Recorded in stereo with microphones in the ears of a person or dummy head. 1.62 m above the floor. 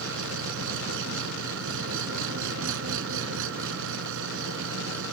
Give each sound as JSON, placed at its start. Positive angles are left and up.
{"t": 0.0, "sound": "an engine running", "side_deg": -75}